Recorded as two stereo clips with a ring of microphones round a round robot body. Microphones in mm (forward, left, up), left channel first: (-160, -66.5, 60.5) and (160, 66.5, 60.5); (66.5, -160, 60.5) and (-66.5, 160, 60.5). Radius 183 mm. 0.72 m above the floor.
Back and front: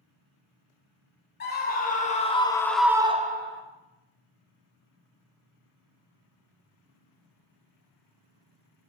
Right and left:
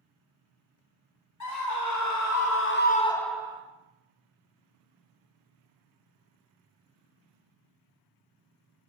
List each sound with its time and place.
1.4 s a scream: 95° right, 1.9 m; by 3.6 s 50° left, 1.0 m